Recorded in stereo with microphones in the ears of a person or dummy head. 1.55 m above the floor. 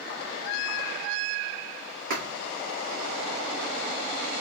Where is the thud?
60° right (ahead or behind), 2.5 m.